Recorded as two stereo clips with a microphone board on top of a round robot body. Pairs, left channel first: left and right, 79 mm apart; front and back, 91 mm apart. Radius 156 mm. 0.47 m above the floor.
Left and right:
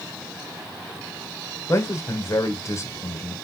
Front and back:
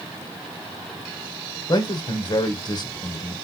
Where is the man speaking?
40° left, 2 m.